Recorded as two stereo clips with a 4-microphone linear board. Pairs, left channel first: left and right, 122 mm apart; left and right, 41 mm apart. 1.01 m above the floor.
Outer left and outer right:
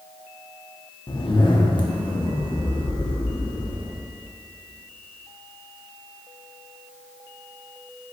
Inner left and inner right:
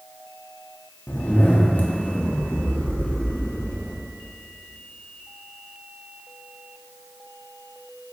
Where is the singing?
I don't hear singing.